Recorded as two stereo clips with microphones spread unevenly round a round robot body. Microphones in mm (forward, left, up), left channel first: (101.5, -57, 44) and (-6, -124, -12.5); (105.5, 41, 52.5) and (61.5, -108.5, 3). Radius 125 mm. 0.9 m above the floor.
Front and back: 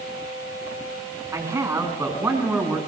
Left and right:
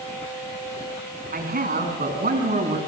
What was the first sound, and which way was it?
A man speaking, 80° right.